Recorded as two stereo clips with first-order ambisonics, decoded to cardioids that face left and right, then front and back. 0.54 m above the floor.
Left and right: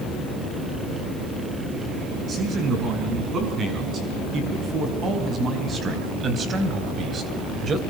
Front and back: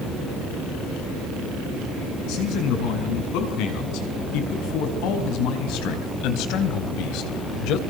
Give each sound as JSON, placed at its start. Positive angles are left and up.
{"t": 2.3, "sound": "a man speaking", "azimuth_deg": -25, "distance_m": 6.5}